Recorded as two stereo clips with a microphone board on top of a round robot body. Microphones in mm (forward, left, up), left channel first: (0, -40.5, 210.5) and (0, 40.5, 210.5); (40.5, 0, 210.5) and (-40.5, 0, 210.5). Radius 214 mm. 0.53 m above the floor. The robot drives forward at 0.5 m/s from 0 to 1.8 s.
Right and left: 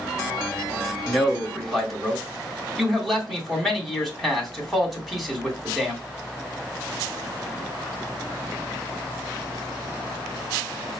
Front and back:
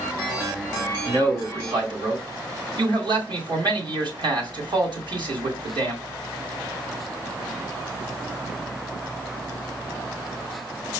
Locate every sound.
1.1 s a man speaking: straight behind, 1.9 m